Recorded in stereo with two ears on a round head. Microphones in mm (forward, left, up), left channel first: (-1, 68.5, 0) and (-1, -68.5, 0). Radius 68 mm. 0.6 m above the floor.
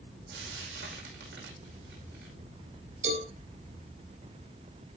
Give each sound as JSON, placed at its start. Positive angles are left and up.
{"t": 0.3, "sound": "frying", "side_deg": -80, "distance_m": 5.5}
{"t": 3.0, "sound": "a cowbell", "side_deg": -45, "distance_m": 6.0}